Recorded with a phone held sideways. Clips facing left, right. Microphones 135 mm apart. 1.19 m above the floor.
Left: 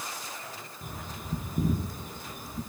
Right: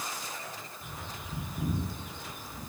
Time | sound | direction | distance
0.8 | a bird | 45° left (ahead or behind) | 6 m